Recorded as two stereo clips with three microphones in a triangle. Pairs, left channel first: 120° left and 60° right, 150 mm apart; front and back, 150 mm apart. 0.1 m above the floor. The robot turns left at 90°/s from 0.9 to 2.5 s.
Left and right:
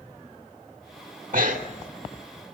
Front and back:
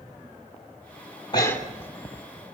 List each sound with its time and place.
1.3 s breathing: 55° right, 2.5 m; by 1.9 s 110° right, 2.5 m